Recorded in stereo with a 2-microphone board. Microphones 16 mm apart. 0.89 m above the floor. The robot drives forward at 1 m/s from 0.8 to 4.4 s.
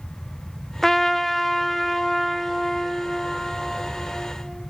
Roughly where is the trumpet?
Left.